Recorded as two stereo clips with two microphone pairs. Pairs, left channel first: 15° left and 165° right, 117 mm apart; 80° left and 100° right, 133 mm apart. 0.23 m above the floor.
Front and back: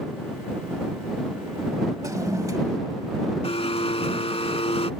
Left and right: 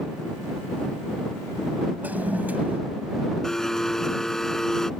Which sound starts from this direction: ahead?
A blender, at 3.4 s.